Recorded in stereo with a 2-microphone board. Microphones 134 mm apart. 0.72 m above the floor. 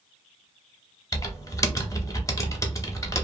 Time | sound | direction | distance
1.1 | typing on a keyboard | 25° left (ahead or behind) | 0.6 m